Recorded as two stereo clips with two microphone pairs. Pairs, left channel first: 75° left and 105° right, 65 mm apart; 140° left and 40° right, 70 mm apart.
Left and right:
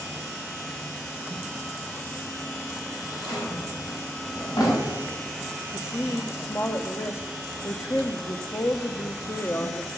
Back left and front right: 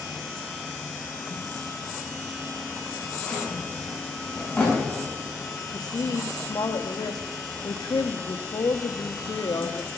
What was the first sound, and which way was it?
A drawer, 65° left.